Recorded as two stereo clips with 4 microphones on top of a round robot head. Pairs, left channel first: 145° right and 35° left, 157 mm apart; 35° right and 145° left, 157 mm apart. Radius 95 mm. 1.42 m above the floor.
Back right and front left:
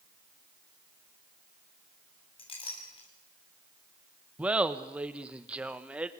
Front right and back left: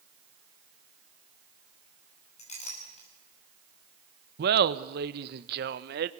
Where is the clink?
85° right, 7 m.